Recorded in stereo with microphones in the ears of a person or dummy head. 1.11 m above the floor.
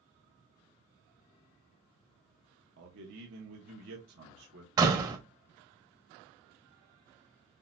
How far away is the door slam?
About 1.0 m.